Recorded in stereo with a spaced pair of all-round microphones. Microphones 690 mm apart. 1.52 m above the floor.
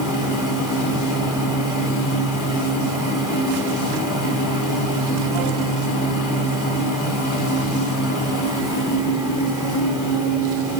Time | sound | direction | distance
0.0 | a machine running | 25° left (ahead or behind) | 4 m